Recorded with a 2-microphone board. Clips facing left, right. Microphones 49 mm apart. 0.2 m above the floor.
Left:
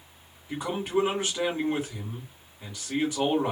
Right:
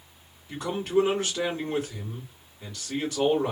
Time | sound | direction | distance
0.5 | a man speaking | 15° left (ahead or behind) | 1.9 m